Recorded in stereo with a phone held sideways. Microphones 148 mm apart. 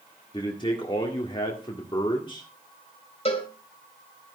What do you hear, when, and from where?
0.3 s a man speaking: 30° left (ahead or behind), 1.7 m
3.2 s a cowbell: 40° left (ahead or behind), 2 m